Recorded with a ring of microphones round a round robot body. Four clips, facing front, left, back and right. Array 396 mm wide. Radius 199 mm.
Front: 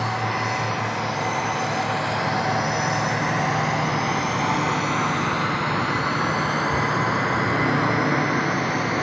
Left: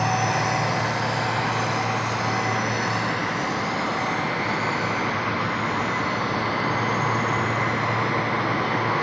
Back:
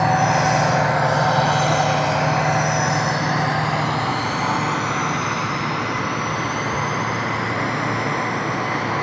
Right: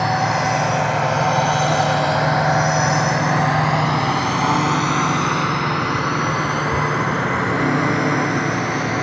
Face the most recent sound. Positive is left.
turn(degrees=-70)